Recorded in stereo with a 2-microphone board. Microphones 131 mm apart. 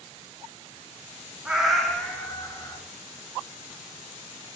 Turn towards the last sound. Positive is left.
turn(degrees=30)  # may be behind; listen again after turning